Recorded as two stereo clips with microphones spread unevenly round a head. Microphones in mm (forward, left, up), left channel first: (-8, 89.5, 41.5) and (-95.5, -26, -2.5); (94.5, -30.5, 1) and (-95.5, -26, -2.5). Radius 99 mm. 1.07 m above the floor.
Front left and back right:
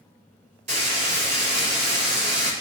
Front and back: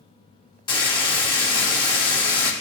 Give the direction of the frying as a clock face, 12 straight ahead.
2 o'clock.